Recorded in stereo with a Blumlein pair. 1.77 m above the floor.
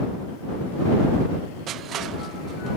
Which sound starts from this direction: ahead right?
Crushing, at 1.7 s.